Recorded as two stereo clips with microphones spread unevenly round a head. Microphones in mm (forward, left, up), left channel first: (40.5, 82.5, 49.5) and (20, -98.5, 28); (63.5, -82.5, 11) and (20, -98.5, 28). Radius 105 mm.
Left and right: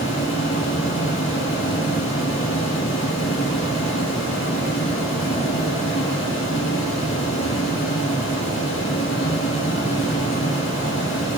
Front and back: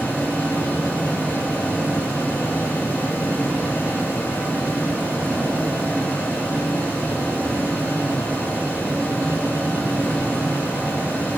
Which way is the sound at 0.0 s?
145° left.